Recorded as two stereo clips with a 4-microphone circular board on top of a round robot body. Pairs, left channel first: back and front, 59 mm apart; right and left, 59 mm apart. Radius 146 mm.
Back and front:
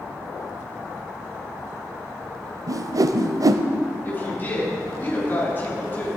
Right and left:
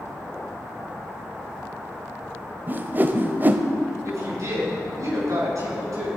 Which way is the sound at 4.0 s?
120° left.